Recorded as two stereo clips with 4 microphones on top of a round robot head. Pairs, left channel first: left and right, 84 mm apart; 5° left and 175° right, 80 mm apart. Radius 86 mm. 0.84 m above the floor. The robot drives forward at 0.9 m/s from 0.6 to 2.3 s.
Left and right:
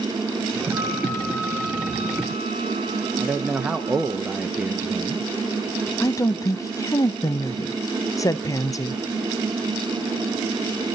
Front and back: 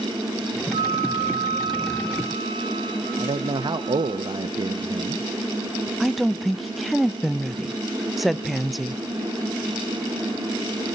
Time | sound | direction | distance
0.7 | a flute | straight behind | 0.9 m
3.2 | a man speaking | 170° right | 0.7 m
6.0 | a woman speaking | 95° left | 0.5 m